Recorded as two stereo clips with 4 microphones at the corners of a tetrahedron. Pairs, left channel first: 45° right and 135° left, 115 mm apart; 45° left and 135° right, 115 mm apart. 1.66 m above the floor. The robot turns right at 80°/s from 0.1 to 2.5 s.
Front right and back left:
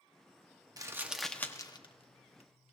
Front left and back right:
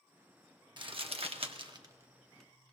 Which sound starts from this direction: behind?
Crumpling, at 0.8 s.